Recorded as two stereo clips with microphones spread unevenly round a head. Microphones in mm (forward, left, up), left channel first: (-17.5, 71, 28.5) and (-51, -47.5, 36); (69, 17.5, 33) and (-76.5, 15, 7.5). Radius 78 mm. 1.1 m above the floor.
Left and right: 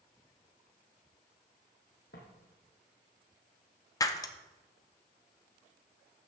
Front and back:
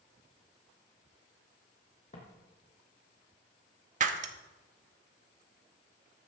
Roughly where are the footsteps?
Ahead left.